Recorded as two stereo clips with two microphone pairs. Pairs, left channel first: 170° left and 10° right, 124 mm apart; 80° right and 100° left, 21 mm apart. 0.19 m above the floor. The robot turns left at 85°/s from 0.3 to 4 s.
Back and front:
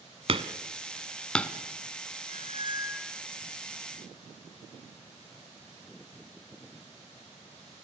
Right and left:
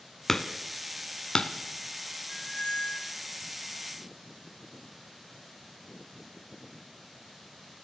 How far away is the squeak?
About 0.7 m.